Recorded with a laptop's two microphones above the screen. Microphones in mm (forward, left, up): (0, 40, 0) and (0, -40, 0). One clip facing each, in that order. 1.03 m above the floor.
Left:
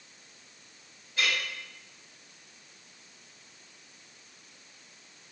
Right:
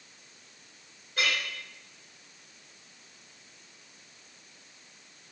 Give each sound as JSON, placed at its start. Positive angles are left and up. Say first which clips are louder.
{"t": 1.2, "sound": "a clink", "louder": "even", "side_deg": -70, "distance_m": 1.9}